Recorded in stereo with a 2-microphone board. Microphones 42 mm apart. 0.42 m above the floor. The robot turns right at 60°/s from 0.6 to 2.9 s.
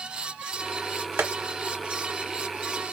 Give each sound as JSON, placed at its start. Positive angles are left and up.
{"t": 1.2, "sound": "tapping", "side_deg": -55, "distance_m": 1.1}